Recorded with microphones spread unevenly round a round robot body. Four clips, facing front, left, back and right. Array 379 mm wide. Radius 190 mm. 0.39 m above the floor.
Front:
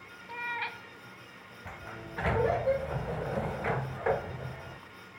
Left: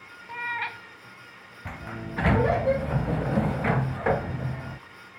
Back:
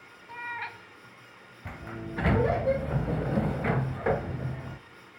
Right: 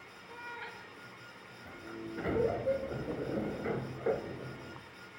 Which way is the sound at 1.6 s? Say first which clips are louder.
Left 6 dB, back 5 dB; 95° left.